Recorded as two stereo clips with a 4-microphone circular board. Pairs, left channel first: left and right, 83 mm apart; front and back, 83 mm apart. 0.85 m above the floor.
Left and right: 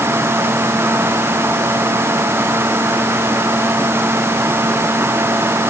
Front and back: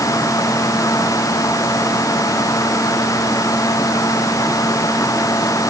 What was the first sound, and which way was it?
Only background noise.